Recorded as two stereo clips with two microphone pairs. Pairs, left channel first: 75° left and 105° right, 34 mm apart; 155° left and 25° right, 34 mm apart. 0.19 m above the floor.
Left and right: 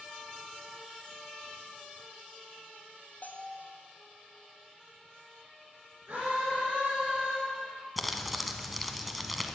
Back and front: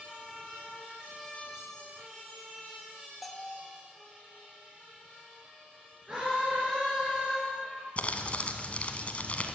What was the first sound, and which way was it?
A bell, 60° left.